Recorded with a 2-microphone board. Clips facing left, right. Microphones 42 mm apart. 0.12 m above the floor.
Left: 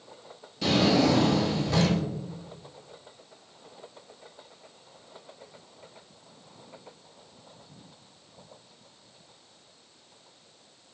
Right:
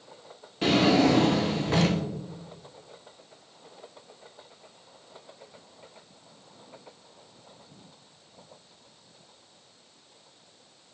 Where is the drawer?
35° right (ahead or behind), 0.5 m.